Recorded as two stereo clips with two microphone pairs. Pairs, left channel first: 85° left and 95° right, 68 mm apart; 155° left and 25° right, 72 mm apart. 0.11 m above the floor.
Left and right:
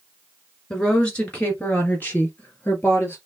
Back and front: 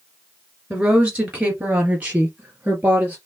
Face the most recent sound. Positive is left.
turn(degrees=30)